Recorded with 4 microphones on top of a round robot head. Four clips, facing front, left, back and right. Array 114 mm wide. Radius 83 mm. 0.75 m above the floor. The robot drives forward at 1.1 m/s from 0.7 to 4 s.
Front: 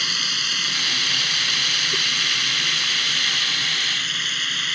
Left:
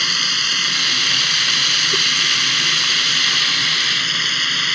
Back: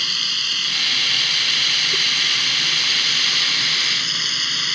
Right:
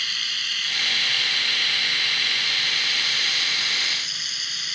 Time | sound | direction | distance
0.0 | running water | 85° left | ?